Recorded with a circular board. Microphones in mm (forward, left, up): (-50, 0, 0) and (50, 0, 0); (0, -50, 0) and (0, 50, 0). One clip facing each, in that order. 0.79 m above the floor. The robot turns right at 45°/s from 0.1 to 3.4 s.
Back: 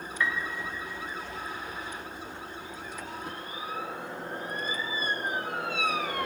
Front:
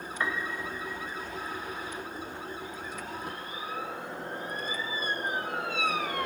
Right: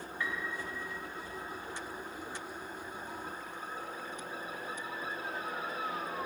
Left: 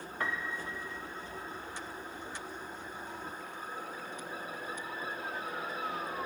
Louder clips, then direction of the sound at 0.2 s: Back 1 dB, left 2 dB; 55° left.